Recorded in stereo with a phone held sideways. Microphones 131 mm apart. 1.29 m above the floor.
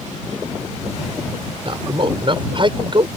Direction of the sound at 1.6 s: 45° right (ahead or behind).